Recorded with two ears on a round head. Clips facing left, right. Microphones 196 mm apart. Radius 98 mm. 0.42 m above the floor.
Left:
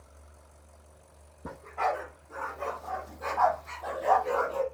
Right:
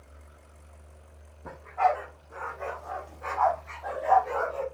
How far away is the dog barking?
About 8 m.